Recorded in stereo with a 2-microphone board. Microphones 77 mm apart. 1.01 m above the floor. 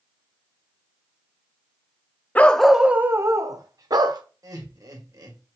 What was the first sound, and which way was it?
A dog barking, 20° left (ahead or behind).